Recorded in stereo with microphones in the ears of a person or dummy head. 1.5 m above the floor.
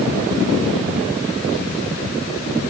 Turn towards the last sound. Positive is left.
No sound to turn to.